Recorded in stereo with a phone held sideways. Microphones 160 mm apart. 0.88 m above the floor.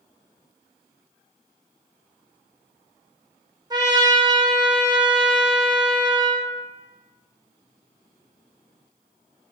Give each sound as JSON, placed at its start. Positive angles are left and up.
{"t": 3.7, "sound": "a trumpet", "side_deg": -25, "distance_m": 0.9}